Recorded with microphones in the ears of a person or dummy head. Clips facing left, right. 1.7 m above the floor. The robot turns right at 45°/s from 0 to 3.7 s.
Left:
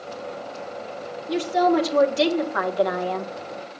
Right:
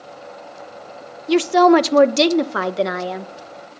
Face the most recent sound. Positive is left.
turn(degrees=15)